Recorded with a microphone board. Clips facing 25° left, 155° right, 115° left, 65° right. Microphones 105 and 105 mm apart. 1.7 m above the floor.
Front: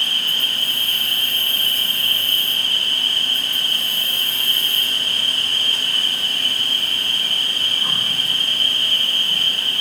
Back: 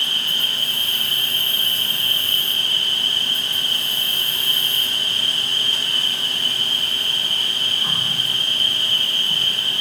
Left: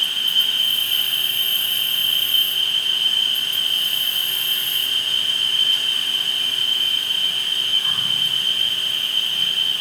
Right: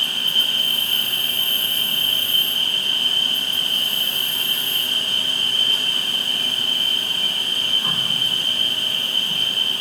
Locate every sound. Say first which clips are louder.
0.0 s an insect: front 1 dB, right 1 dB; 95° right, 6.5 m